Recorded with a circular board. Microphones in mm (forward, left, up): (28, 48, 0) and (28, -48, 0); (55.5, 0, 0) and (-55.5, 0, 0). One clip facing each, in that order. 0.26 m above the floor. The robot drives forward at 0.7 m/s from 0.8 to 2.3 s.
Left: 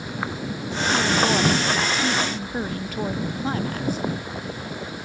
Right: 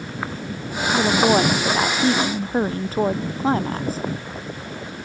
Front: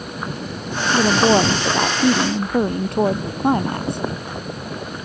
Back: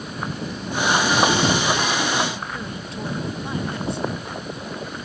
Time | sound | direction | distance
0.9 | a woman speaking | 35° right | ?